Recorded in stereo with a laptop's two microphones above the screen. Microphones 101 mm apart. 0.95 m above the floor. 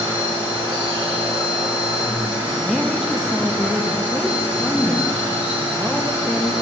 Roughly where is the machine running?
Right.